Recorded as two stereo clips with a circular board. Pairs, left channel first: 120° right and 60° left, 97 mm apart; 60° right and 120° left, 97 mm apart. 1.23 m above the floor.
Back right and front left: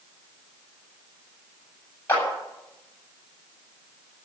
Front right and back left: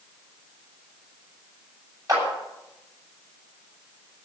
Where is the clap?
170° left, 8 m.